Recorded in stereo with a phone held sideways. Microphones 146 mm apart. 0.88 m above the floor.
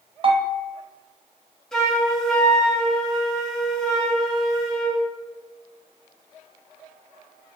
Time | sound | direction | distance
0.2 | a bell | 35° right (ahead or behind) | 0.6 m
1.7 | a flute | 5° left (ahead or behind) | 0.8 m